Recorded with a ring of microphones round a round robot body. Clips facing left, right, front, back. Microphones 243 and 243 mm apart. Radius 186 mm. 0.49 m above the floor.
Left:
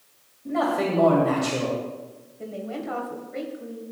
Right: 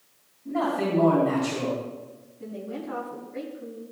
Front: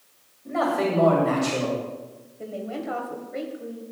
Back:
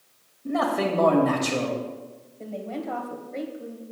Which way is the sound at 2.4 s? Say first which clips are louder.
Left 2 dB, front 1 dB; 80° left.